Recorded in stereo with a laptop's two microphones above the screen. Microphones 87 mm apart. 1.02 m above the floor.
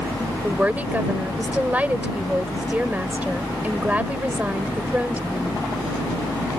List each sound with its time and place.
0.4 s a woman speaking: 20° right (ahead or behind)